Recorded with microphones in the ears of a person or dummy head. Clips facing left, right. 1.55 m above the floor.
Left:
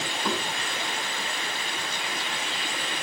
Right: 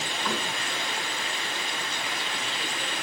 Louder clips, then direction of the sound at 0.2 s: Left 2 dB; 25° left (ahead or behind).